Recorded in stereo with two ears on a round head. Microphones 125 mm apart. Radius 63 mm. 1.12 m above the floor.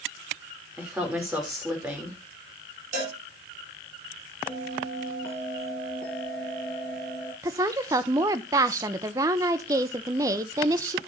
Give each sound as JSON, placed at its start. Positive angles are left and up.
{"t": 0.8, "sound": "a woman speaking", "side_deg": -10, "distance_m": 4.0}
{"t": 2.9, "sound": "a cowbell", "side_deg": -60, "distance_m": 8.5}
{"t": 4.5, "sound": "a bell", "side_deg": 5, "distance_m": 3.5}
{"t": 7.4, "sound": "a woman speaking", "side_deg": -25, "distance_m": 0.9}